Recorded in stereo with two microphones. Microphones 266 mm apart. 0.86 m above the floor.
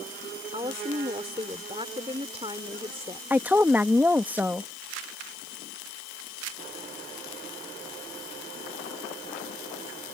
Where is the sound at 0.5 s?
20° right (ahead or behind).